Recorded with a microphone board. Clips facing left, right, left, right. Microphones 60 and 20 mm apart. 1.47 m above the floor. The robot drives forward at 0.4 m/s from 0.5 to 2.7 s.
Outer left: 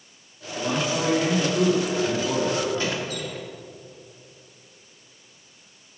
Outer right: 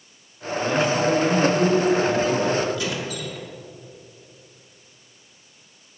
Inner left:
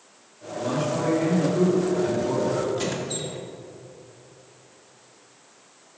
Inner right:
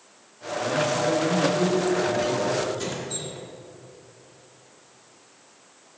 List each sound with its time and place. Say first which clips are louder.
0.6 s a man speaking: outer right 4 dB, inner right 2 dB; 60° left (ahead or behind), 3.5 m; by 2.6 s 70° left (ahead or behind), 3 m
2.8 s a squeak: even, inner left 3 dB; 35° left (ahead or behind), 1.7 m